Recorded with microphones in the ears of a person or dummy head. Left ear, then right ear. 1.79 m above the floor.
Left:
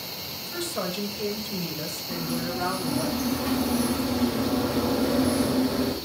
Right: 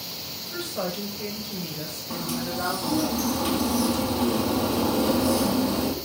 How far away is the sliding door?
About 3.5 m.